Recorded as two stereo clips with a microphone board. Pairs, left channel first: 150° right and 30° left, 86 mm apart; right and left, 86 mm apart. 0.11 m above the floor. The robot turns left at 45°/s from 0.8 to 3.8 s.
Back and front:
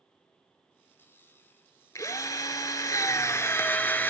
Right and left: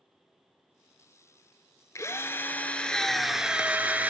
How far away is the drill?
About 0.6 m.